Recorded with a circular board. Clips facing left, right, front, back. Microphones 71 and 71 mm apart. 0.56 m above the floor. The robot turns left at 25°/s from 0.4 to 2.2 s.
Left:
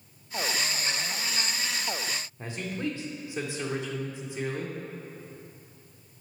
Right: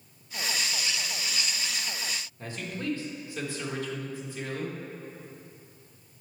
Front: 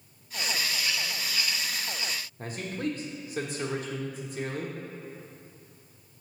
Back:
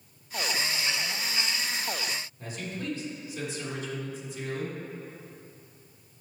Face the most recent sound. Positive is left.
turn(degrees=25)